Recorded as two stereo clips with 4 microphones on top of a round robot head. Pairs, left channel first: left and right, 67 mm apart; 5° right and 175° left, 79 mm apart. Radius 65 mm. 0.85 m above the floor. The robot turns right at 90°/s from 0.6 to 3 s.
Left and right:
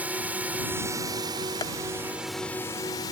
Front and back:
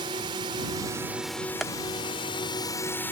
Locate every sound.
0.0 s a drone: 155° right; by 3.1 s 60° left
1.6 s tapping: 85° left; by 1.7 s 95° left